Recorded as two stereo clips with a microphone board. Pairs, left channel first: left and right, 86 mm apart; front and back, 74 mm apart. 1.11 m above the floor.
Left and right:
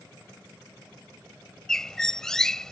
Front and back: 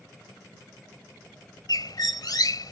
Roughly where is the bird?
Ahead.